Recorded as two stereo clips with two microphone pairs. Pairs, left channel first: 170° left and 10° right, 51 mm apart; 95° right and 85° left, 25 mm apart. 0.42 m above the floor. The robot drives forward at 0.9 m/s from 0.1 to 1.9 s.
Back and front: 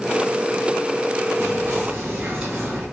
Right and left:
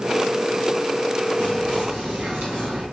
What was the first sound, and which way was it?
Whispering, 55° left.